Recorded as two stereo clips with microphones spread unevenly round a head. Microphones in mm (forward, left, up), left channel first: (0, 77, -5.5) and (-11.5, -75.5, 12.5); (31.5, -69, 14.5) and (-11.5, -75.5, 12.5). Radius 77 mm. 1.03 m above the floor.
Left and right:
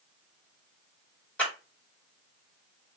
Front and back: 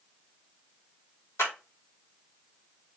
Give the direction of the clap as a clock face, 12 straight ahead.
12 o'clock.